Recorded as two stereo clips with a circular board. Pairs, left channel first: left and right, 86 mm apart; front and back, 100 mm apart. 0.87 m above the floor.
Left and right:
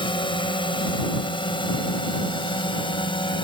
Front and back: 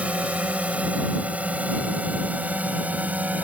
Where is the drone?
105° left.